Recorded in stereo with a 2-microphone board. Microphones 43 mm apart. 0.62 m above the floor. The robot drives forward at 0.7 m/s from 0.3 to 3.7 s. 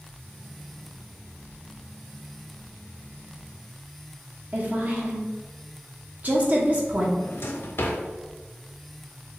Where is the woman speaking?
40° right (ahead or behind), 1.1 m.